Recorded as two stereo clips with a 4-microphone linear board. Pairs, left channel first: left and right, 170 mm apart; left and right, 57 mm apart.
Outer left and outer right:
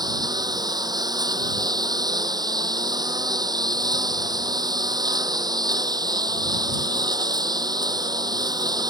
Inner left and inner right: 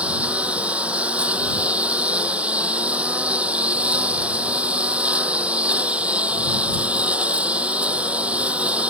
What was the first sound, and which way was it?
A lawn mower, 25° right (ahead or behind).